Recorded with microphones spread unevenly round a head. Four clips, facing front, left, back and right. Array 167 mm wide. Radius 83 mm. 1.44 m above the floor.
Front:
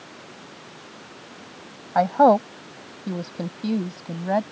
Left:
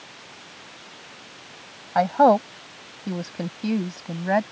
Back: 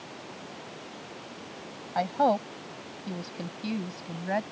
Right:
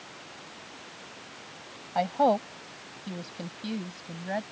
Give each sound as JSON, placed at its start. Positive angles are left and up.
{"t": 1.9, "sound": "a woman speaking", "azimuth_deg": 30}